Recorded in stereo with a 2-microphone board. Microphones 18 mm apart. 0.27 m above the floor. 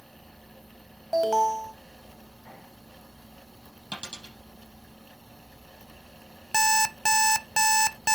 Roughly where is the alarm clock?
Left.